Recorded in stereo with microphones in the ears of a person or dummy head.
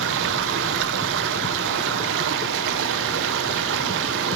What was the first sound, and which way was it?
Running water, 70° right (ahead or behind).